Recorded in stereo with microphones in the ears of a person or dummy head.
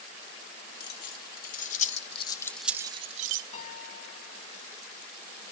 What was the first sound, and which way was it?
Keys jangling, 65° left (ahead or behind).